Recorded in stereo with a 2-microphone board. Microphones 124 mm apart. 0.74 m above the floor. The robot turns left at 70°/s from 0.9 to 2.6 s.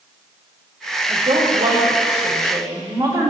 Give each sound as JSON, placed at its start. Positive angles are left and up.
{"t": 1.1, "sound": "a woman speaking", "azimuth_deg": -40, "distance_m": 2.0}